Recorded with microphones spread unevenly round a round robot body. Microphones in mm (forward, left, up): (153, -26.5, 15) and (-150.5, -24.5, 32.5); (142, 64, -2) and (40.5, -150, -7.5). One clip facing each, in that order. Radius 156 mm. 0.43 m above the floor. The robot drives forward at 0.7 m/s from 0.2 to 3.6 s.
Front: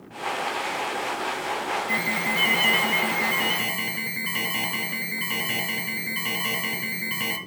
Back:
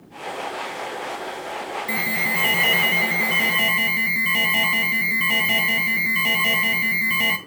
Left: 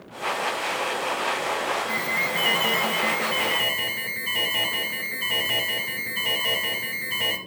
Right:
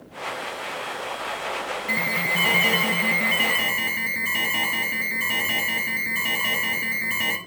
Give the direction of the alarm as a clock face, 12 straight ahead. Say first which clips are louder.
Even, right 1 dB; 6 o'clock.